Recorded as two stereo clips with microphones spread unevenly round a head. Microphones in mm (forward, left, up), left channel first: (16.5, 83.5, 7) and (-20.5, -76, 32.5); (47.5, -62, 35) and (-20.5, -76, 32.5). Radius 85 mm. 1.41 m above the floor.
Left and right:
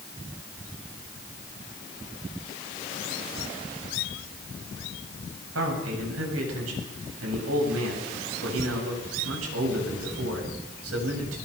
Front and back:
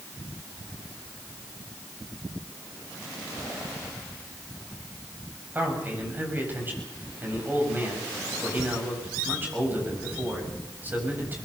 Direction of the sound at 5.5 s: 105° right.